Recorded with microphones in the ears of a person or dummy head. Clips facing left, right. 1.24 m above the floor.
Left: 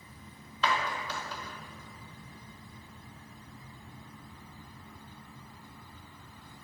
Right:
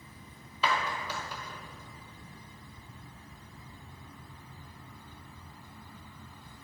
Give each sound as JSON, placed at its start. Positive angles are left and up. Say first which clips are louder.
{"t": 0.6, "sound": "a clap", "louder": "even", "side_deg": -10, "distance_m": 0.9}